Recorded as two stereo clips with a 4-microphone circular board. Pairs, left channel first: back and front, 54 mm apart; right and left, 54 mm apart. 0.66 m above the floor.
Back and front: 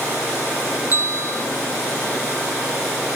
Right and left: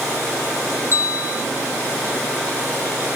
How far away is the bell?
About 2.5 m.